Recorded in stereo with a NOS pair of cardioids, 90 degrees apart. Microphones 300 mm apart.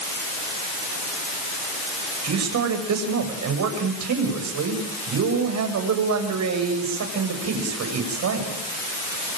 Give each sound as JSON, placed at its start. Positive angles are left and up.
{"t": 2.2, "sound": "a man speaking", "azimuth_deg": -65, "distance_m": 7.5}